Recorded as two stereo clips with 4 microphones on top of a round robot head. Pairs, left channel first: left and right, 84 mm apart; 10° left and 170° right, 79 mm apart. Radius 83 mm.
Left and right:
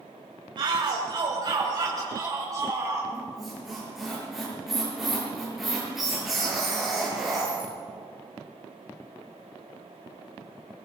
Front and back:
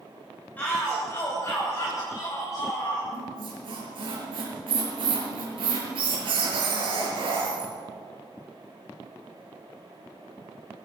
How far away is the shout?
About 3 m.